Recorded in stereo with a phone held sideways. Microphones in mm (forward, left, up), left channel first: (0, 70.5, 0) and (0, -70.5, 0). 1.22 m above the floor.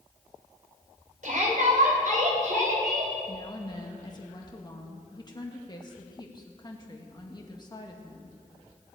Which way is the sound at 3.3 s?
30° left (ahead or behind).